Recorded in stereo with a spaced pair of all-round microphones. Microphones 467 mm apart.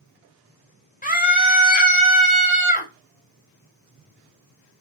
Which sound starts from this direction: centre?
A scream, at 1.0 s.